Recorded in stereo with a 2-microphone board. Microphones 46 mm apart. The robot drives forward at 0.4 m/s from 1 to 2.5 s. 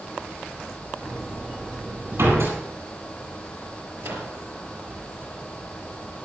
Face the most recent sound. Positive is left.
turn(degrees=-70)  # may be behind; listen again after turning